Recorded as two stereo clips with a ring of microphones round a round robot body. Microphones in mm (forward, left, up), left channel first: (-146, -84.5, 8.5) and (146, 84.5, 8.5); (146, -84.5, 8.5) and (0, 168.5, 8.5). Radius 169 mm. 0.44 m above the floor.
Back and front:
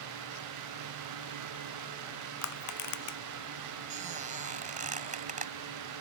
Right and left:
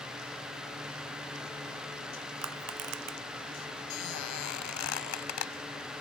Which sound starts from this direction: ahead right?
A squeak, at 3.9 s.